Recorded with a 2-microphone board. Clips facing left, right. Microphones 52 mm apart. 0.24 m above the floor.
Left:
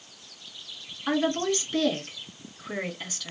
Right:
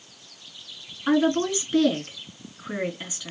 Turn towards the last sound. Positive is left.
turn(degrees=-10)  # may be behind; listen again after turning